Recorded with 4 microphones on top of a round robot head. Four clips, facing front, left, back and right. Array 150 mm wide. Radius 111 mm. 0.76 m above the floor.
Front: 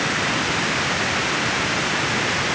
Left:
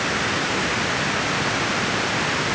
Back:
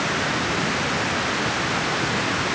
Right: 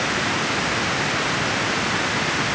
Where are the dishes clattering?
I don't hear dishes clattering.